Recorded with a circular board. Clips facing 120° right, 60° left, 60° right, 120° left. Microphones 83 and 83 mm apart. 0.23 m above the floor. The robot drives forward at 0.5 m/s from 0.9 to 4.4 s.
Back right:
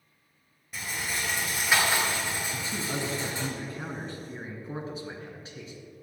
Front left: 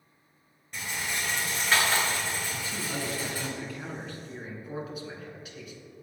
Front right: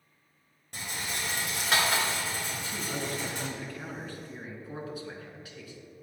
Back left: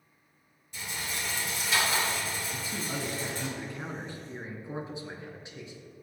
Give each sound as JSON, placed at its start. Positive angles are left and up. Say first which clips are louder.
{"t": 0.7, "sound": "a rattle", "louder": "even, front right 1 dB", "azimuth_deg": -35, "distance_m": 2.5}
{"t": 2.5, "sound": "a man speaking", "louder": "back right 2 dB, even", "azimuth_deg": -170, "distance_m": 1.4}